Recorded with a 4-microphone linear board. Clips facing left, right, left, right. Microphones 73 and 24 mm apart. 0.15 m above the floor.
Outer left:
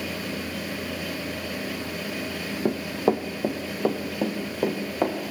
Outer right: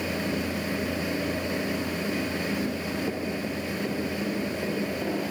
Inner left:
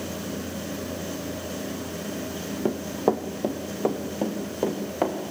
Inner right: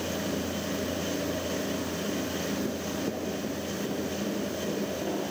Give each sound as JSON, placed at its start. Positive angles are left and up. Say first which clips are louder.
{"t": 2.6, "sound": "running footsteps", "louder": "outer left 6 dB, inner left 7 dB", "side_deg": 75, "distance_m": 1.2}